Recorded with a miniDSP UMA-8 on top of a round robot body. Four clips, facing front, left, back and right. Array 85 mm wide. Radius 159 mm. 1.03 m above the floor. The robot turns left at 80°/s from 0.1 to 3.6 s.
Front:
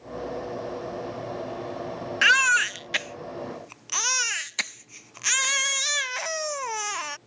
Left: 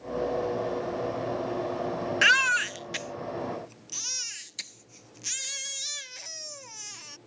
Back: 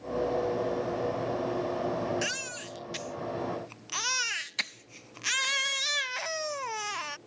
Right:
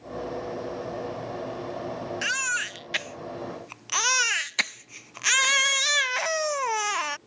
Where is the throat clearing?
I don't hear throat clearing.